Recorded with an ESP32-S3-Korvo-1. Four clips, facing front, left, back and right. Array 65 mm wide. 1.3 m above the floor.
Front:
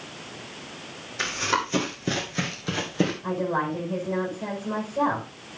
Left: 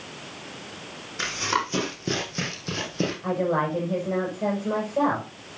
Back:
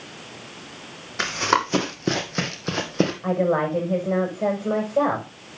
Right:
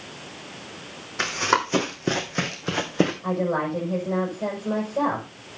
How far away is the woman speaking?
About 7 m.